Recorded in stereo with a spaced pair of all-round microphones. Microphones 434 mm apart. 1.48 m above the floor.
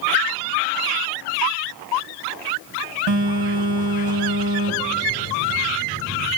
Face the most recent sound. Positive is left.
turn(degrees=-70)  # may be behind; listen again after turning